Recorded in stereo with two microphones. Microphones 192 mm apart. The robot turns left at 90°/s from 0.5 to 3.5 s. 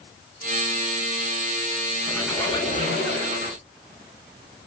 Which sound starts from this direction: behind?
A squeak, at 2.1 s.